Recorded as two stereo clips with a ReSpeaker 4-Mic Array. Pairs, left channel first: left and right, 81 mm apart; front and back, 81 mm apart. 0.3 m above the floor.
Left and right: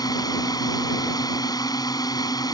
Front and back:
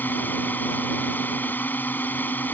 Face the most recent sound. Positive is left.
turn(degrees=65)